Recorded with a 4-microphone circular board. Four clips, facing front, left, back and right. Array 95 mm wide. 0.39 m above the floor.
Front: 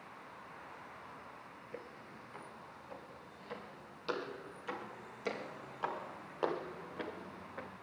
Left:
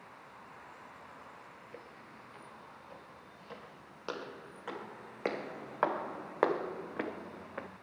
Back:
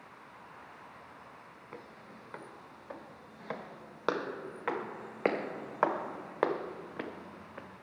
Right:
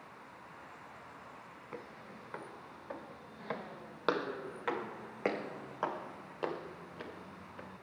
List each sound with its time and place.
1.7 s footsteps: 130° right, 4.5 m; by 7.7 s 95° left, 2.5 m